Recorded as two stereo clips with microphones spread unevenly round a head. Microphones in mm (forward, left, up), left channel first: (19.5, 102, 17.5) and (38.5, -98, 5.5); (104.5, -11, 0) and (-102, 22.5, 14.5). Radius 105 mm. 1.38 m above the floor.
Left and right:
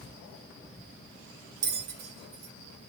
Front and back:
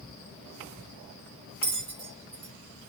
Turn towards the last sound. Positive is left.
turn(degrees=-125)